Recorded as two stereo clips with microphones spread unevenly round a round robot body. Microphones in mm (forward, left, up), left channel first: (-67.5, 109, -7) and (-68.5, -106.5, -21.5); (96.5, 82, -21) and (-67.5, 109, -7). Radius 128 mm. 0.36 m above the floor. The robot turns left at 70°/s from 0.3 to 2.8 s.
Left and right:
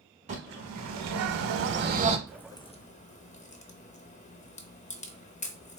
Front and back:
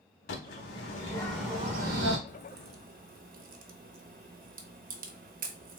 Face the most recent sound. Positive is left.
turn(degrees=145)